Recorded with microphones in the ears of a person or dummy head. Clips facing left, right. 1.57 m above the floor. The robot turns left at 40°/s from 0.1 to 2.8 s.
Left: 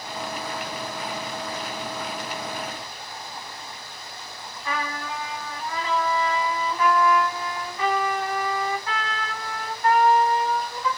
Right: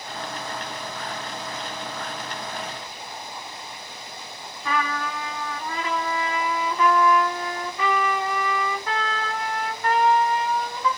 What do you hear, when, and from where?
4.7 s a trumpet: 55° right (ahead or behind), 0.9 m